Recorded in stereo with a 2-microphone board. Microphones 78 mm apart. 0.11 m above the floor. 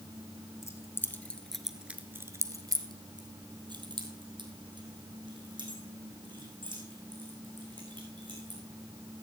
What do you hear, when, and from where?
0.6 s keys jangling: 35° left (ahead or behind), 1.8 m; by 8.6 s 75° right (ahead or behind), 7.5 m